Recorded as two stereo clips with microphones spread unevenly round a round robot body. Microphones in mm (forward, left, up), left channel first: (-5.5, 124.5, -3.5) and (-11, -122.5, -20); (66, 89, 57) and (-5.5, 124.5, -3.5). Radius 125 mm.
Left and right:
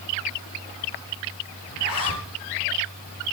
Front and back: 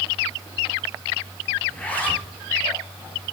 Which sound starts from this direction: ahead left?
A zipper, at 1.7 s.